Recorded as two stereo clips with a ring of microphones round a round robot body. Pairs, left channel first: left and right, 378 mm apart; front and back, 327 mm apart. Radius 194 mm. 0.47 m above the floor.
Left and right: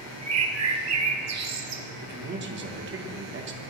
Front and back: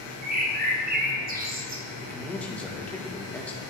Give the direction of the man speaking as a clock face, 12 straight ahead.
3 o'clock.